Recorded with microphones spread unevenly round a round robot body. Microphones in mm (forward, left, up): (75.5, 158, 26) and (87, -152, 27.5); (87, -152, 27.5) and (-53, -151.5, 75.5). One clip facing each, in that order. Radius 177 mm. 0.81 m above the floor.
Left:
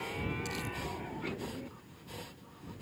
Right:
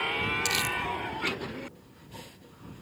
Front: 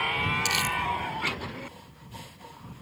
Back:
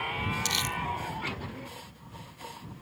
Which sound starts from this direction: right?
Crumpling, at 0.5 s.